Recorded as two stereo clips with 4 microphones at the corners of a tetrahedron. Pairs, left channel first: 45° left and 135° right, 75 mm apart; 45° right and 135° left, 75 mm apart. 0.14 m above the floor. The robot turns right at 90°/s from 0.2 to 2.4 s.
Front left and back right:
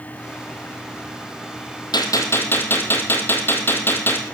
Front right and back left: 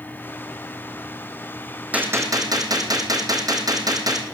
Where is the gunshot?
65° left, 2.5 m; by 4.2 s 105° left, 2.5 m.